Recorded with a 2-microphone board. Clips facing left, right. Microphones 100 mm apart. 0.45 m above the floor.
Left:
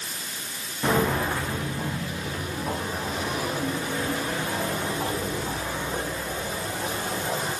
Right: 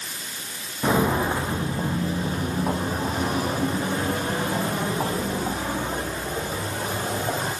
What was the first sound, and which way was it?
Footsteps, 10° right (ahead or behind).